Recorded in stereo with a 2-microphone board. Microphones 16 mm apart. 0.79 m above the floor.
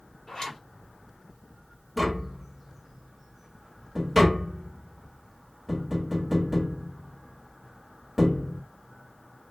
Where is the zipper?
60° left (ahead or behind), 1.9 m.